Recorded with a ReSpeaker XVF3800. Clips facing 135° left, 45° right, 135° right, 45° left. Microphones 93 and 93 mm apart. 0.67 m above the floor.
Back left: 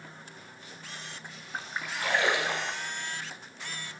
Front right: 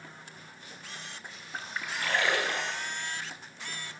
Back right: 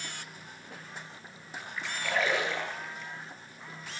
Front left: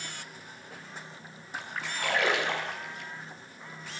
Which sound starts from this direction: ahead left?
A splash, at 1.5 s.